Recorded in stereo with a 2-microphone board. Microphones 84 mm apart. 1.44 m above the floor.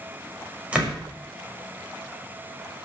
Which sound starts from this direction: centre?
A door slam, at 0.7 s.